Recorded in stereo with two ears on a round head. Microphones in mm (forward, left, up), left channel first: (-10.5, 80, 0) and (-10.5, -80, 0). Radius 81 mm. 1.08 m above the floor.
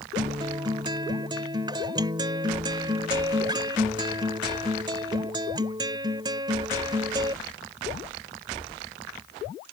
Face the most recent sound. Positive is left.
turn(degrees=-25)  # may be behind; listen again after turning